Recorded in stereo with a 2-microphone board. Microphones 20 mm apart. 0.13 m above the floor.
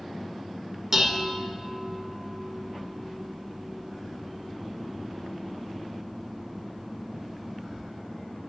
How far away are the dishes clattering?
About 0.8 m.